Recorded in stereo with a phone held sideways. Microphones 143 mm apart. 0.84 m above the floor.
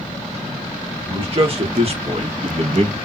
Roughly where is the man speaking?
Right.